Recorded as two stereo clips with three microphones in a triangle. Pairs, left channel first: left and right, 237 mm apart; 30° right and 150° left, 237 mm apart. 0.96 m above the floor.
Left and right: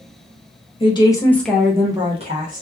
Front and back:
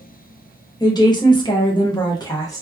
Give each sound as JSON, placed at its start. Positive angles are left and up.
{"t": 0.8, "sound": "a woman speaking", "azimuth_deg": 35, "distance_m": 0.8}